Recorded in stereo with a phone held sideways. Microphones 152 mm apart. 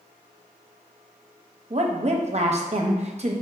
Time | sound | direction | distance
1.7 | a woman speaking | 45° right (ahead or behind) | 0.6 m